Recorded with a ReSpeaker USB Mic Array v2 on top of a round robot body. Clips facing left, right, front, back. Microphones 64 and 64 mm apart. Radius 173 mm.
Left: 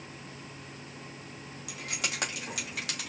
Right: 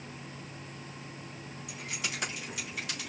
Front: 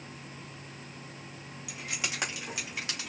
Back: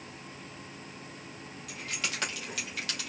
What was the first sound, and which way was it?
Keys jangling, 75° left.